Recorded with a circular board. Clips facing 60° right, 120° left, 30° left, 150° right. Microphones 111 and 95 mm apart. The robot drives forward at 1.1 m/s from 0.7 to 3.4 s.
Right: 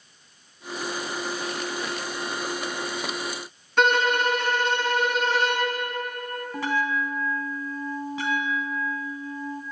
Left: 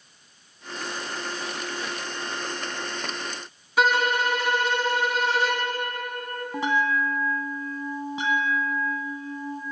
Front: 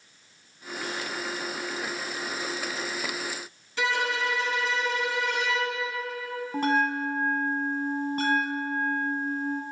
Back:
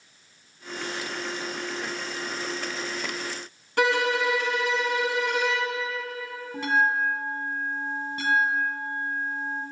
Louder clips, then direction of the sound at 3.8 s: Right 1 dB, back 5 dB; 155° right.